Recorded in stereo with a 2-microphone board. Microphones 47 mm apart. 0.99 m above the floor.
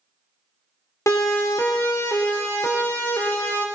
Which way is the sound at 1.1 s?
75° left (ahead or behind).